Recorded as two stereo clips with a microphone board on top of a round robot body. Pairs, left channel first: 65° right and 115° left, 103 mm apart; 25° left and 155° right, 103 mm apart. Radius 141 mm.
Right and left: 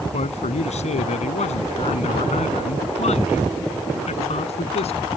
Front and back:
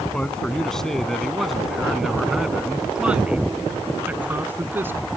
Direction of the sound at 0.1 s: 60° right.